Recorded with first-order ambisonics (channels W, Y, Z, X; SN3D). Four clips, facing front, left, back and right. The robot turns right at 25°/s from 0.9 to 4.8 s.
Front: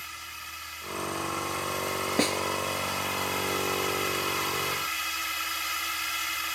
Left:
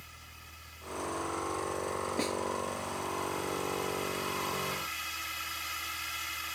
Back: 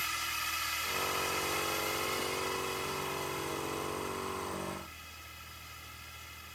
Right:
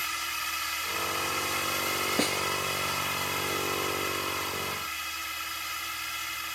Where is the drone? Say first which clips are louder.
Right 19 dB, back 5 dB; 110° right; by 6.5 s 10° right.